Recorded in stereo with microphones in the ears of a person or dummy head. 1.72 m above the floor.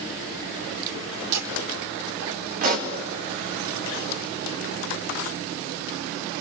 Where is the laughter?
80° right, 3 m; by 2.8 s 75° right (ahead or behind), 2.5 m.